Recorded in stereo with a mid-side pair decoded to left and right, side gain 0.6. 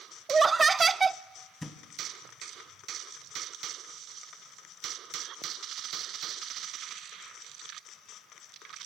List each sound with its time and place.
0.3 s laughter: 25° right, 0.5 m
1.6 s a thud: 10° left, 2.5 m